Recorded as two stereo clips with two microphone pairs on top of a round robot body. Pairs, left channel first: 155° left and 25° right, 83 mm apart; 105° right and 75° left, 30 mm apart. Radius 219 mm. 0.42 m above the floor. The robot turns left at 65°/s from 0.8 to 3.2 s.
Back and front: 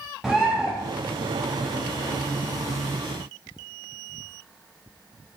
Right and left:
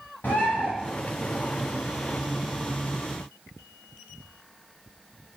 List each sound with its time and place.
0.2 s a bird: 110° right, 0.5 m